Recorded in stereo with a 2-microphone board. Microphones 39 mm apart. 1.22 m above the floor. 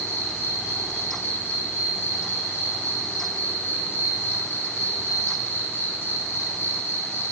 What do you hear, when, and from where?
0.0 s an insect: 75° left (ahead or behind), 5.5 m